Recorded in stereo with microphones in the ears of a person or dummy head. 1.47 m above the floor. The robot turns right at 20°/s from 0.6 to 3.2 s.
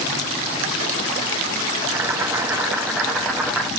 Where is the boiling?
15° right (ahead or behind), 0.9 m; by 3.7 s 5° right (ahead or behind), 0.9 m.